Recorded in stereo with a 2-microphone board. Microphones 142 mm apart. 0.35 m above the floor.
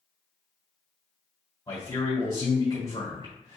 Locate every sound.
1.7 s a man speaking: 25° left (ahead or behind), 1.5 m